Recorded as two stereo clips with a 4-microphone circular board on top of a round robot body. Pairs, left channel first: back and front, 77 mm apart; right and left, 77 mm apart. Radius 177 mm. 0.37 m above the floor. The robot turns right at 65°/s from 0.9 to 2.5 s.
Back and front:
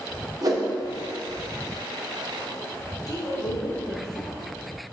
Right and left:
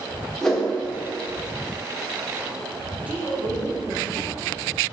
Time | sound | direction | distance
0.4 | a whoosh | 5° right | 1.6 m
3.1 | a woman speaking | 160° left | 2 m